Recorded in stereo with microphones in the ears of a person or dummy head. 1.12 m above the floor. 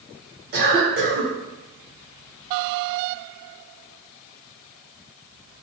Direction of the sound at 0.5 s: 50° right (ahead or behind).